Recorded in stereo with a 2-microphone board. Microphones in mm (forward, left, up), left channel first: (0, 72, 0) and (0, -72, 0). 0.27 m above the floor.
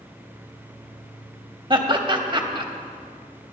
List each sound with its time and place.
1.7 s laughter: 35° right (ahead or behind), 1.0 m